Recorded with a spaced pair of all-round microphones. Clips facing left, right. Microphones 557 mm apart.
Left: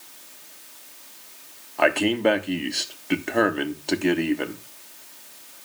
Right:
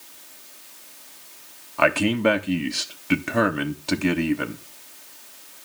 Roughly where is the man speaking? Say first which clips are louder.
Even; right.